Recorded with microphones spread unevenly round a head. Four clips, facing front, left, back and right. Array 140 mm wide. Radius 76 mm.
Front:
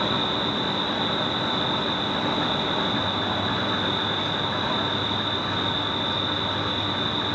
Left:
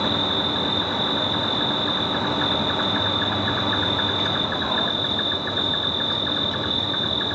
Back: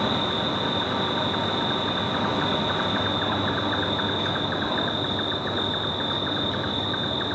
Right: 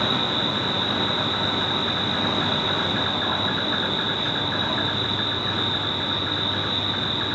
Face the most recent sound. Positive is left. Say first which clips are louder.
# left 1 dB, even
turn(degrees=145)